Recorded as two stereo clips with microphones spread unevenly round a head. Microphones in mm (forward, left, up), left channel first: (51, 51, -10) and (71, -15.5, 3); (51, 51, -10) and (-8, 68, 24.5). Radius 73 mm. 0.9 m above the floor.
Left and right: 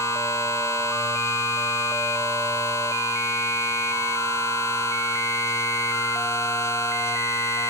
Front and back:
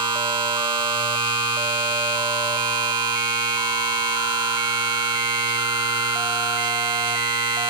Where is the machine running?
175° left.